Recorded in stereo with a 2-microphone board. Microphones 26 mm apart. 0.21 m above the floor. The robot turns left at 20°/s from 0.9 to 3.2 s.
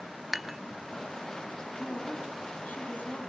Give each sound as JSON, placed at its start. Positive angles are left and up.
{"t": 0.3, "sound": "dishes clattering", "side_deg": -5, "distance_m": 0.7}
{"t": 1.8, "sound": "a woman speaking", "side_deg": 75, "distance_m": 7.0}